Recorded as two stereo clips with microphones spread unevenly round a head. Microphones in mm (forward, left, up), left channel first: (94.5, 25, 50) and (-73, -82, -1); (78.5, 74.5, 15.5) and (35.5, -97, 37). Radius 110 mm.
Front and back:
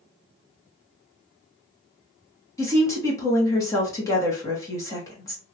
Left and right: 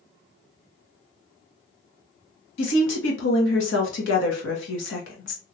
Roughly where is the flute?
No flute in this recording.